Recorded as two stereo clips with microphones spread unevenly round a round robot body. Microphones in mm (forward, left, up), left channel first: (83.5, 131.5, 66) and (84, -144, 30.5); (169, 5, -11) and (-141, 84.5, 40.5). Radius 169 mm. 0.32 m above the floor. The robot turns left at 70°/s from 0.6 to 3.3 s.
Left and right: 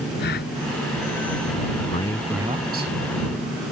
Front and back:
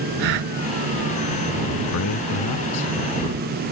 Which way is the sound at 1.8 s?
30° left.